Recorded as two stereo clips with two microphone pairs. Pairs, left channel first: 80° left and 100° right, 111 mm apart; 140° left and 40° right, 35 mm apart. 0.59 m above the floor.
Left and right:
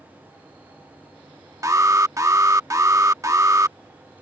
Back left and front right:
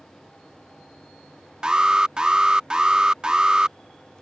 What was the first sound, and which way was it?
An alarm, 85° right.